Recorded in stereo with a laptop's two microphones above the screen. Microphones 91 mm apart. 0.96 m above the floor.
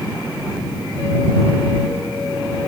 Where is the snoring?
No snoring in this recording.